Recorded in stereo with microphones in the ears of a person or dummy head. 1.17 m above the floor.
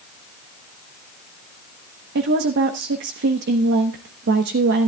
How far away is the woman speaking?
About 1.0 m.